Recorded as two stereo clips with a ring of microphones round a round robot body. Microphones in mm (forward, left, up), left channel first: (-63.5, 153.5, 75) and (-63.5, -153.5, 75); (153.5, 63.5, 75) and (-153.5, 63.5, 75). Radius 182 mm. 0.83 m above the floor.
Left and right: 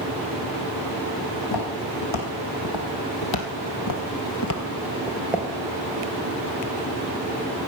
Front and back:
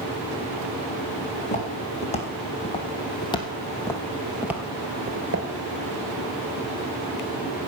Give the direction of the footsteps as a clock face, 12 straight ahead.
10 o'clock.